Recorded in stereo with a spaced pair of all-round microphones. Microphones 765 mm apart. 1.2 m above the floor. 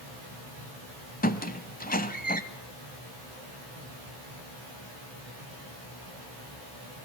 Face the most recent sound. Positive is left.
turn(degrees=10)  # may be behind; listen again after turning